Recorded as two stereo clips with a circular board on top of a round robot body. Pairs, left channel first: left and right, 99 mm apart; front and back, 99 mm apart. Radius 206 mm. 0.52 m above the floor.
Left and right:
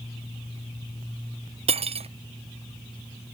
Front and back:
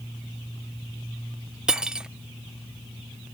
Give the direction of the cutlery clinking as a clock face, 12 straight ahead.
3 o'clock.